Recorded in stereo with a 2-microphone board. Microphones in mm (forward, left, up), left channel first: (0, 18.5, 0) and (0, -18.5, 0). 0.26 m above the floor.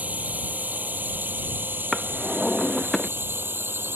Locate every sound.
0.0 s a drone: 45° right (ahead or behind); by 4.0 s 80° right
1.9 s a drawer: 5° left (ahead or behind)